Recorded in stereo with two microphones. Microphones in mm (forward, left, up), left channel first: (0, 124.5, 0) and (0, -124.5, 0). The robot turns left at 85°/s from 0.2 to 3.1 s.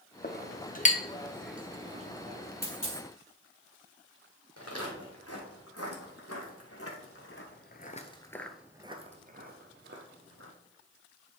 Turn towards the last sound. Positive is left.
turn(degrees=-55)  # may be behind; listen again after turning